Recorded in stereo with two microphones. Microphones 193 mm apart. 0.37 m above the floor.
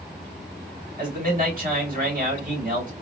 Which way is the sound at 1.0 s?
50° right (ahead or behind).